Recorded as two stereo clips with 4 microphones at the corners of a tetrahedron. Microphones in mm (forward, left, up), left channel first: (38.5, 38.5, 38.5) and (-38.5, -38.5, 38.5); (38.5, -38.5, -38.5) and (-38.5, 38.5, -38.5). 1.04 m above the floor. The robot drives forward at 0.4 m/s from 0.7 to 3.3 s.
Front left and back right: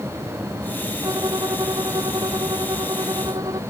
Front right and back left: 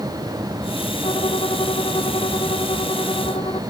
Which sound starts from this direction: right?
A violin, at 1.0 s.